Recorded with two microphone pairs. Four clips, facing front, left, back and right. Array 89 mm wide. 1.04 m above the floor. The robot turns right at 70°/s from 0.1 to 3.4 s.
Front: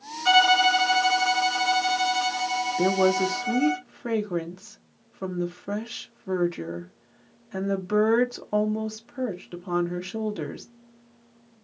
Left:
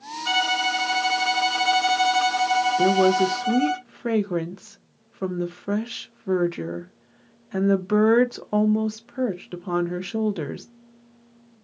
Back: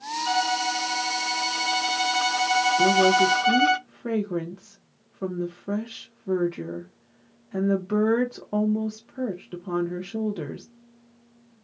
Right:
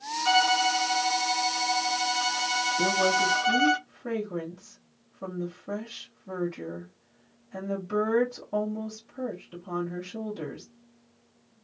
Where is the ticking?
I don't hear ticking.